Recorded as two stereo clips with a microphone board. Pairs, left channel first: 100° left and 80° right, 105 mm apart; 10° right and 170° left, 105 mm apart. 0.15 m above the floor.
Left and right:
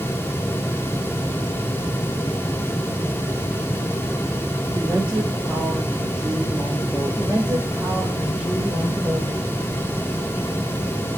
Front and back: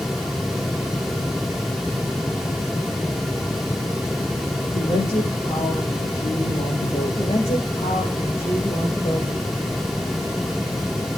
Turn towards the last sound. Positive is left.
turn(degrees=0)